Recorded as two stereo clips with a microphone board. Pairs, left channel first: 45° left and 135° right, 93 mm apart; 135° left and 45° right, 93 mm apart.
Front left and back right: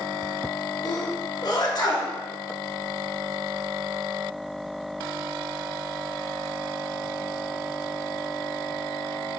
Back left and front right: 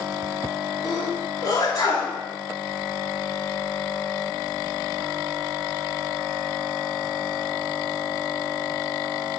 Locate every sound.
0.8 s a sneeze: 85° left, 3.5 m